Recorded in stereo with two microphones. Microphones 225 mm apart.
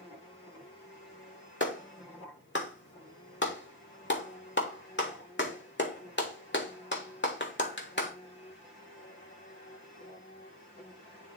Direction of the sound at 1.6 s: 55° left (ahead or behind).